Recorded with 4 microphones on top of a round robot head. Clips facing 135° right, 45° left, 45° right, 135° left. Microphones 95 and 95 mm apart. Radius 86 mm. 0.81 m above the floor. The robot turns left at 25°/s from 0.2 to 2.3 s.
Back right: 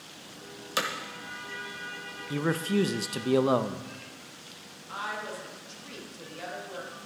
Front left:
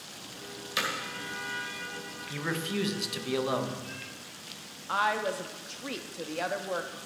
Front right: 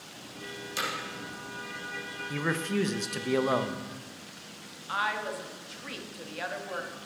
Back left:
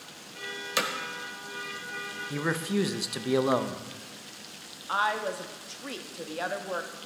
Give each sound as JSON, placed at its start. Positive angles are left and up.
{"t": 0.8, "sound": "hammering", "azimuth_deg": 170, "distance_m": 1.0}
{"t": 2.3, "sound": "a man speaking", "azimuth_deg": -150, "distance_m": 0.7}
{"t": 4.9, "sound": "a woman speaking", "azimuth_deg": 70, "distance_m": 1.1}